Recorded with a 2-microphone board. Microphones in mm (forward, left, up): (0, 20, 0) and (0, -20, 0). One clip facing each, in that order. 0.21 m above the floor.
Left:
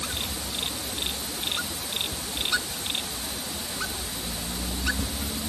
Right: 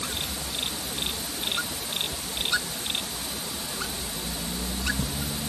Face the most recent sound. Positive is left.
No sound to turn to.